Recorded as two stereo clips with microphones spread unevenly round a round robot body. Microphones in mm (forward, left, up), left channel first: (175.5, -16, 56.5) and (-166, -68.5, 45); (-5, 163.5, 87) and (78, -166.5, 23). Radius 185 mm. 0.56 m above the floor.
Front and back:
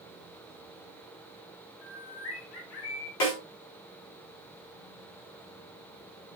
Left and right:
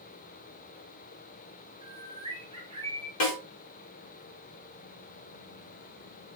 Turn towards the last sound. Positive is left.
turn(degrees=55)